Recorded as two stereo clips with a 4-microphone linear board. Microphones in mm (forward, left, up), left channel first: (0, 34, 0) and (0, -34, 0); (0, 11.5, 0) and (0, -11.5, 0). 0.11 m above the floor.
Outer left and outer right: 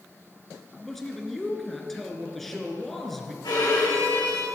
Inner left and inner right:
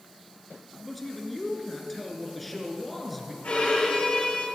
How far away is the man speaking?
About 1.7 m.